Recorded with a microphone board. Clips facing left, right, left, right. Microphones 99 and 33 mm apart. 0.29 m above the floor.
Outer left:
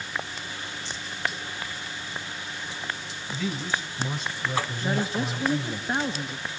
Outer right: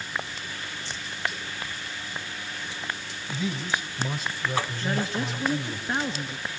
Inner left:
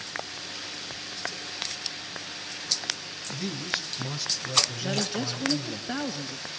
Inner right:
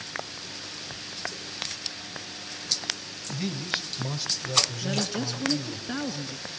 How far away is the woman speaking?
About 1.7 m.